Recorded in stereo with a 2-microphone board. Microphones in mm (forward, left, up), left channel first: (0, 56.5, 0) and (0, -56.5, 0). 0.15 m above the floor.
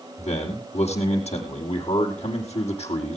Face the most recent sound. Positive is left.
turn(degrees=75)  # may be behind; listen again after turning